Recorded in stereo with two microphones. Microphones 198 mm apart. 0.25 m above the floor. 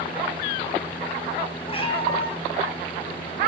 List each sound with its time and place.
1.7 s a cat meowing: 25° left (ahead or behind), 2.5 m